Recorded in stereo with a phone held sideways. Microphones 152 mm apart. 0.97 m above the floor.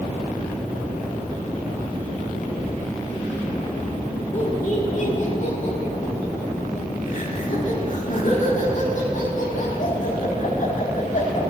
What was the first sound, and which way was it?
Laughter, 60° left (ahead or behind).